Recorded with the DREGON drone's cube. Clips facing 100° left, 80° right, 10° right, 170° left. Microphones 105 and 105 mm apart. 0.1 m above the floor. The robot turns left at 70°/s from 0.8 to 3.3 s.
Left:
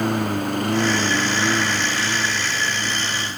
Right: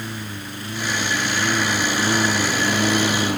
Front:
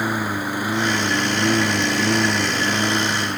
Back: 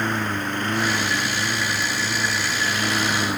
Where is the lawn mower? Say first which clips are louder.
Left 11 dB, front 2 dB; 70° left; by 3.4 s 105° right.